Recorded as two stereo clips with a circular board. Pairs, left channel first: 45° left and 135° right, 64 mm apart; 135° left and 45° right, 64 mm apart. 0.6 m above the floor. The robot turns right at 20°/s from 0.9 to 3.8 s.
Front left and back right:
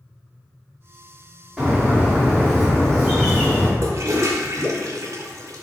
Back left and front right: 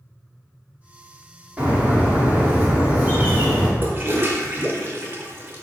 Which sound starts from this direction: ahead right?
A bird, at 1.6 s.